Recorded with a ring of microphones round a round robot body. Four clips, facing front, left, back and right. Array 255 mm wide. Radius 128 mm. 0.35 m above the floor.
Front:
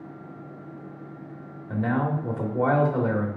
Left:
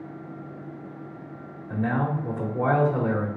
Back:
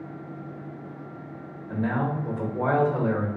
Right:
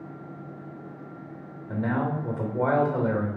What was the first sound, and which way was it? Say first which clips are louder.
A man speaking: left 1 dB, front 1 dB; 20° right.